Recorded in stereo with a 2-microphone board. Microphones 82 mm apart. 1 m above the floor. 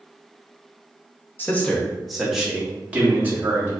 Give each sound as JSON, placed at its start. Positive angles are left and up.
{"t": 1.4, "sound": "a man speaking", "side_deg": 25, "distance_m": 0.8}